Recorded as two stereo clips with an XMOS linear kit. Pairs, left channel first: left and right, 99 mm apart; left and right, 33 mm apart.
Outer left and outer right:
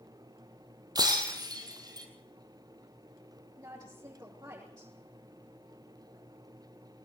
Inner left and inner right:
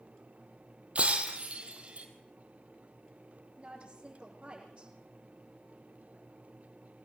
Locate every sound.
0.9 s breaking glass: 40° right (ahead or behind), 3 m
3.6 s a woman speaking: 35° right (ahead or behind), 7 m